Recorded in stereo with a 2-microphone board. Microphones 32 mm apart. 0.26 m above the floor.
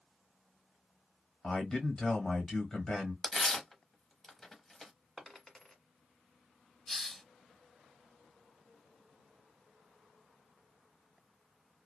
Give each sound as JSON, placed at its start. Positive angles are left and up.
{"t": 1.4, "sound": "a man speaking", "side_deg": 20, "distance_m": 1.1}
{"t": 3.2, "sound": "tearing paper", "side_deg": 10, "distance_m": 0.8}
{"t": 5.2, "sound": "a dropped coin", "side_deg": 5, "distance_m": 1.2}
{"t": 6.9, "sound": "a hiss", "side_deg": 10, "distance_m": 0.5}